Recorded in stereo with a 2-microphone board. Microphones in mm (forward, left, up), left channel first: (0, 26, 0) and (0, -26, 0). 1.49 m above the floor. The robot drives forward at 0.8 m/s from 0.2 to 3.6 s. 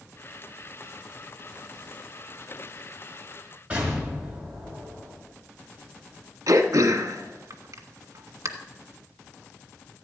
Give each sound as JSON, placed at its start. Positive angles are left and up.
{"t": 3.7, "sound": "an explosion", "side_deg": -20, "distance_m": 5.5}
{"t": 6.5, "sound": "throat clearing", "side_deg": -75, "distance_m": 1.4}